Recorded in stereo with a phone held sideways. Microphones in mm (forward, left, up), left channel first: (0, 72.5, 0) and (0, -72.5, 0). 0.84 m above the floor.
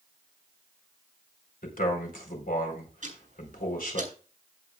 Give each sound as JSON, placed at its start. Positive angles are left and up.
{"t": 1.6, "sound": "a man speaking", "side_deg": 80, "distance_m": 4.0}
{"t": 3.0, "sound": "ticking", "side_deg": -60, "distance_m": 5.0}